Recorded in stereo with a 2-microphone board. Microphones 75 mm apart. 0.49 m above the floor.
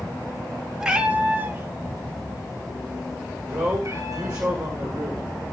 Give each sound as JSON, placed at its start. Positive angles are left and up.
{"t": 0.8, "sound": "a cat meowing", "side_deg": -10, "distance_m": 0.8}
{"t": 3.5, "sound": "a man speaking", "side_deg": -50, "distance_m": 1.9}